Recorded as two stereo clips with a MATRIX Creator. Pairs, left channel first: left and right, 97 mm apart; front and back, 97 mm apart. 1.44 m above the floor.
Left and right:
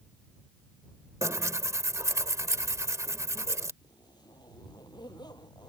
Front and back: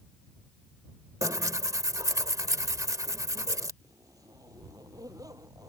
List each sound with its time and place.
1.2 s tearing paper: 140° right
3.8 s a zipper: 130° left